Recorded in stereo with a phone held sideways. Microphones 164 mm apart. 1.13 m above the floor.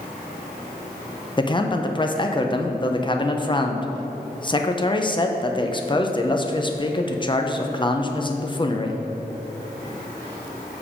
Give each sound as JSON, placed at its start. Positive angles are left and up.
{"t": 1.4, "sound": "a man speaking", "side_deg": 30, "distance_m": 0.6}